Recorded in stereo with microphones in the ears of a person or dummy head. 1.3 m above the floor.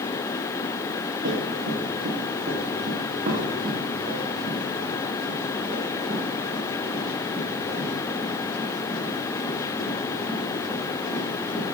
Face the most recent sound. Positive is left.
turn(degrees=-5)  # may be behind; listen again after turning